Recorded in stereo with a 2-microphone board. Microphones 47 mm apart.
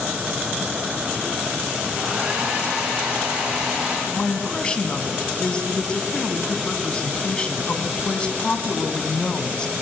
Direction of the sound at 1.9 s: 15° right (ahead or behind).